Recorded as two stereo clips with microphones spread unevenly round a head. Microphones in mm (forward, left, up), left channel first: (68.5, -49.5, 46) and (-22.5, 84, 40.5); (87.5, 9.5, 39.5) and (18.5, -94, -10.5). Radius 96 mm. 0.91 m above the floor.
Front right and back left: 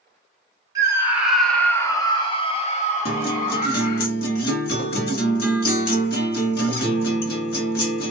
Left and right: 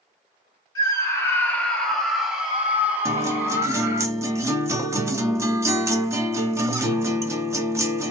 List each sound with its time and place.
0.8 s a scream: 135° left, 1.0 m; by 4.0 s 75° right, 1.7 m
3.0 s a guitar: 45° right, 1.1 m